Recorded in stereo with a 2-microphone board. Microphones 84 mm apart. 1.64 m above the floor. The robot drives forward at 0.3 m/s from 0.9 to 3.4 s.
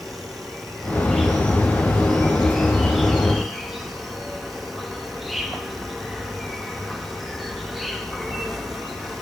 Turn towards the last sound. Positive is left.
turn(degrees=0)  # may be behind; listen again after turning